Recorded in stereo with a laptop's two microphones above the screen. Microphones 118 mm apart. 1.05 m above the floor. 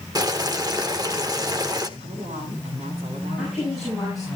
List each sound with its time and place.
0.1 s boiling: 35° right (ahead or behind), 1.5 m
2.0 s a woman speaking: 65° right (ahead or behind), 9.5 m
3.4 s a woman speaking: centre (ahead or behind), 7 m